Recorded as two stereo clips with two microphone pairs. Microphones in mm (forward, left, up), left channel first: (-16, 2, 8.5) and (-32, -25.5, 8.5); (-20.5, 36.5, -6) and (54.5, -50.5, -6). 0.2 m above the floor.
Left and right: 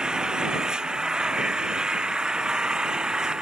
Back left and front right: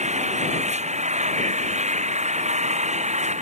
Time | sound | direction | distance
0.0 | an engine running | 50° right | ?